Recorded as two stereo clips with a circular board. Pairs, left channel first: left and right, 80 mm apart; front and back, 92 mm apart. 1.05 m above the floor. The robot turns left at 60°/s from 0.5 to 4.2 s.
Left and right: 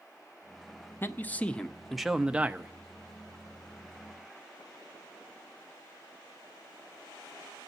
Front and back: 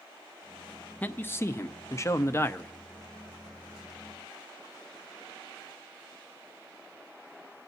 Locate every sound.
1.0 s a man speaking: 55° left, 0.5 m; by 2.7 s 45° right, 0.5 m